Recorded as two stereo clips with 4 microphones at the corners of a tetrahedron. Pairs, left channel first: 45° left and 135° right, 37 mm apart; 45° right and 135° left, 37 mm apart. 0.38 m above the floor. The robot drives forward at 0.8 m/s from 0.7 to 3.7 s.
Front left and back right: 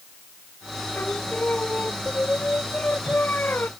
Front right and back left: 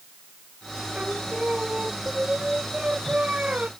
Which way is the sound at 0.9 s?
75° left.